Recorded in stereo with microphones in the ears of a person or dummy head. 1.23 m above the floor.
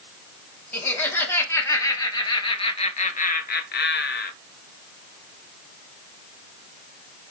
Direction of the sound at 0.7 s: 5° left (ahead or behind).